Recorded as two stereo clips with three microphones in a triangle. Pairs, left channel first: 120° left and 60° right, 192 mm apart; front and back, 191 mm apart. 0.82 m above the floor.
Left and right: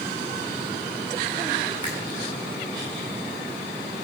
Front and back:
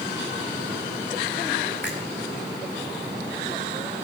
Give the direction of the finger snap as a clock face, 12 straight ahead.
12 o'clock.